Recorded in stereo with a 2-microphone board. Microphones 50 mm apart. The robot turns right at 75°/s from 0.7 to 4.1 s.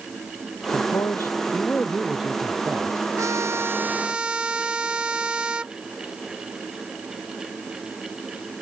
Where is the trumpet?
90° right; by 5.7 s 20° right.